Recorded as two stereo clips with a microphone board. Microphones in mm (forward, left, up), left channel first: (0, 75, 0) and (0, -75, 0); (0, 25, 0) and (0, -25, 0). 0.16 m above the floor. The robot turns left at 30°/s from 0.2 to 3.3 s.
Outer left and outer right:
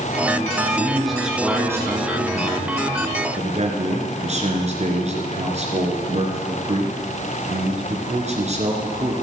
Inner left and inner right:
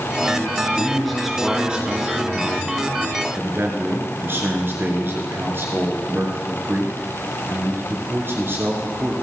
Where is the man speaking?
10° left, 3 m; by 9.1 s 65° right, 3 m.